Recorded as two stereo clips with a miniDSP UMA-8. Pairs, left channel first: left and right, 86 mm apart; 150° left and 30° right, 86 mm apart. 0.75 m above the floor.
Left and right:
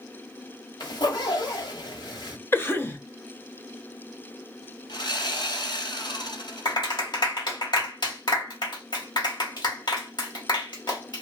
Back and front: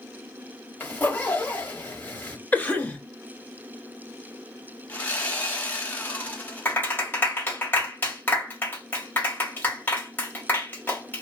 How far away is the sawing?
About 1.5 m.